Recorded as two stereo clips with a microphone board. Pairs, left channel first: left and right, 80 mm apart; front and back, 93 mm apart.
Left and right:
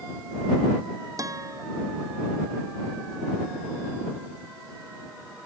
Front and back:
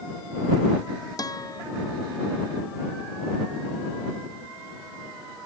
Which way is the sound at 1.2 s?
45° right.